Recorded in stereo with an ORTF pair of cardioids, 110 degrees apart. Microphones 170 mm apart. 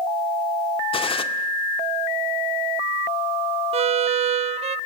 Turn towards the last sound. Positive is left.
turn(degrees=-40)